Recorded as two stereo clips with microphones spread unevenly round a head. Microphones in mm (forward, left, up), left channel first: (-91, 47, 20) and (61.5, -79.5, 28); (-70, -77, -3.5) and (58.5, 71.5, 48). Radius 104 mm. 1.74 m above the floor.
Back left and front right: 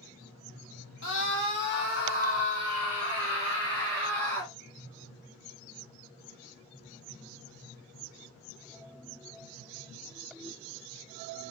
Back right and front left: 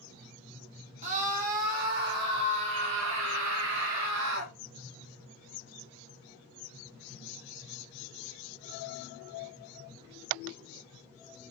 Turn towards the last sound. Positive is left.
turn(degrees=60)